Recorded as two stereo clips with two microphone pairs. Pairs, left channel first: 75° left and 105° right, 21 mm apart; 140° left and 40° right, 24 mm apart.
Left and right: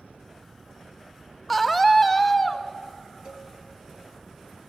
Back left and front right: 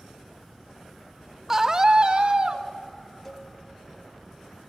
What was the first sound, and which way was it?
A scream, 5° right.